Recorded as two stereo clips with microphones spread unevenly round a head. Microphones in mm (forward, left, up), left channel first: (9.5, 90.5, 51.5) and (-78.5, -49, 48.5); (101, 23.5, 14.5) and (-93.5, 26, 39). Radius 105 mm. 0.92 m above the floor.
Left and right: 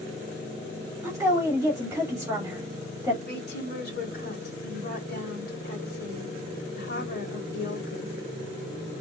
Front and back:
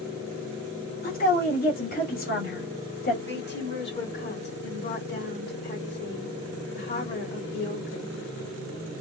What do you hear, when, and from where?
1.0 s a woman speaking: 45° right, 2.5 m
3.3 s a woman speaking: 25° left, 2.5 m